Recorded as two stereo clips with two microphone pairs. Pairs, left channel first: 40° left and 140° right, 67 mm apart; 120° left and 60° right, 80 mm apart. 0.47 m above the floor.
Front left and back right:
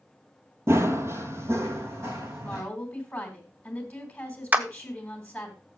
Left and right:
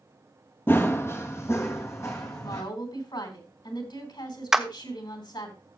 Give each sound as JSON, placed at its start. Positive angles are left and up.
{"t": 0.7, "sound": "running footsteps", "azimuth_deg": 175, "distance_m": 0.8}
{"t": 2.4, "sound": "a woman speaking", "azimuth_deg": 115, "distance_m": 3.0}
{"t": 4.5, "sound": "a clap", "azimuth_deg": -140, "distance_m": 0.8}